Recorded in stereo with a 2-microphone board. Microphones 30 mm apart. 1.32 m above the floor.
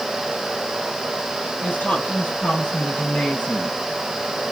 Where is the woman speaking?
85° left, 5 m; by 3.8 s 75° left (ahead or behind), 6 m.